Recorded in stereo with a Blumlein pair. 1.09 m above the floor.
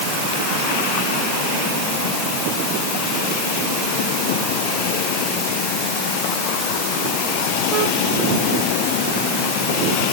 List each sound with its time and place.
Only background noise.